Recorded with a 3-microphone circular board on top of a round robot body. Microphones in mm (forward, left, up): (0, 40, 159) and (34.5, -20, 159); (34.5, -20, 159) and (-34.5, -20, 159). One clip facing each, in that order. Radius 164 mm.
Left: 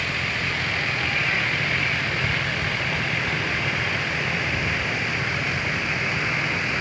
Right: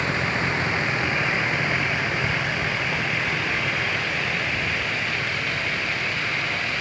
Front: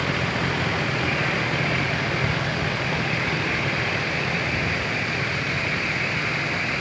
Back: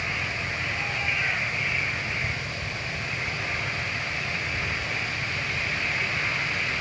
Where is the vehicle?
Straight ahead; by 6.8 s 45° left.